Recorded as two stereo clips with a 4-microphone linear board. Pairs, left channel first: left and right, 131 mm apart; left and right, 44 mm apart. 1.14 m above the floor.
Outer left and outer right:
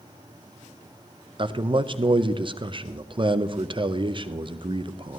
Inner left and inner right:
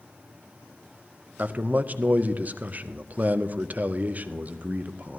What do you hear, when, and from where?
1.4 s a man speaking: 40° right (ahead or behind), 0.5 m